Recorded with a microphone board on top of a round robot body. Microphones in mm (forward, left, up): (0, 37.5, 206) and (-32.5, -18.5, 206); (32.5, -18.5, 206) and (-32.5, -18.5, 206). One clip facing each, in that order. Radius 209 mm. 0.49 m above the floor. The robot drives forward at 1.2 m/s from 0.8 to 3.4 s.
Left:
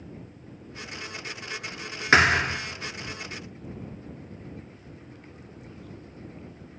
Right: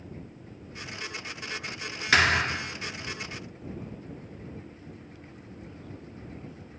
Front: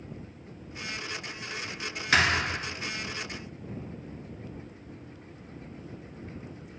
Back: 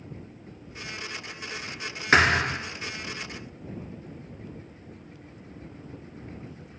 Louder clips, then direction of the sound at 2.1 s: Left 3 dB, back 4 dB; 120° left.